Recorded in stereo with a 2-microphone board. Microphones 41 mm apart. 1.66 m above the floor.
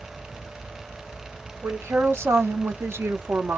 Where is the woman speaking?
80° right, 1.5 m; by 3.6 s 60° right (ahead or behind), 0.8 m.